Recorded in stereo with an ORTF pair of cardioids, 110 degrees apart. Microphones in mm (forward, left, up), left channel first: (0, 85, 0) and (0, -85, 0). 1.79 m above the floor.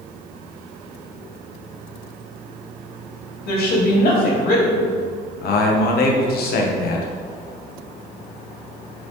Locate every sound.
3.5 s a woman speaking: 60° left, 2.5 m
5.4 s a man speaking: 60° left, 1.5 m